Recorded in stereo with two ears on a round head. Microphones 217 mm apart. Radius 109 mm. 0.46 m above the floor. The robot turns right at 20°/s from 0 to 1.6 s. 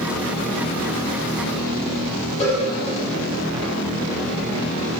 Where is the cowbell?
30° left (ahead or behind), 6 m.